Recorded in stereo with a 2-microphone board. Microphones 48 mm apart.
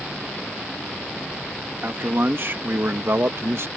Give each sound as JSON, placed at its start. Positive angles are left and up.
{"t": 1.8, "sound": "a man speaking", "side_deg": -45}